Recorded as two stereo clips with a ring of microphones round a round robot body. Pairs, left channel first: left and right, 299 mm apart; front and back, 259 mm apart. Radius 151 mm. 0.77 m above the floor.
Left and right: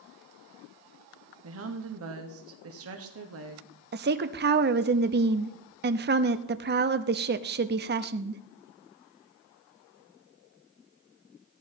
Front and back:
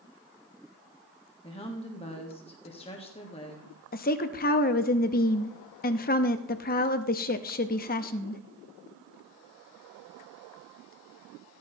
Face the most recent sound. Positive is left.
turn(degrees=-45)